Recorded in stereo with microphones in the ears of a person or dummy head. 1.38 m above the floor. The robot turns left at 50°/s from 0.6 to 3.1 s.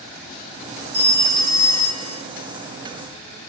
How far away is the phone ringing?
About 3.5 m.